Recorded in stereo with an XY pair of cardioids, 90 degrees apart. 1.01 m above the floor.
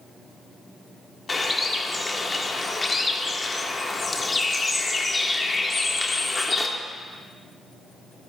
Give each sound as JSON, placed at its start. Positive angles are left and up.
{"t": 1.3, "sound": "a bird", "azimuth_deg": 30, "distance_m": 1.8}